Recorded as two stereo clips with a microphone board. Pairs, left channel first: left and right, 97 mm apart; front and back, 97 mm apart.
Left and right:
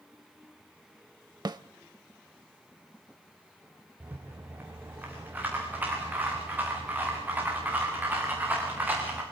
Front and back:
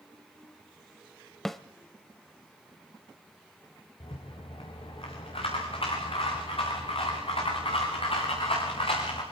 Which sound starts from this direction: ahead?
A rattle, at 4.0 s.